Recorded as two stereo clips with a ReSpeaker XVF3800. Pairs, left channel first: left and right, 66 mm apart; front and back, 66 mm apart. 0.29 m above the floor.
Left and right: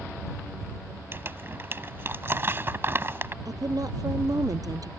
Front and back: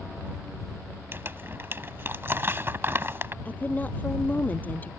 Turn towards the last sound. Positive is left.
turn(degrees=-65)